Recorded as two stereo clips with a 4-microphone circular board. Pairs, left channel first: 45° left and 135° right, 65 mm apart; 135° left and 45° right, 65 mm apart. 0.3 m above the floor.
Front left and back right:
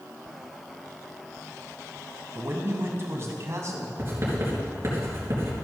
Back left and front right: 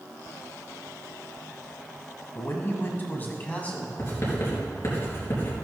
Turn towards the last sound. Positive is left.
turn(degrees=175)